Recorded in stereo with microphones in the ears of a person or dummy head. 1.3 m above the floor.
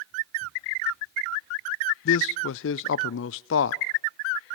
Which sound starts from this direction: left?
A man speaking, at 2.0 s.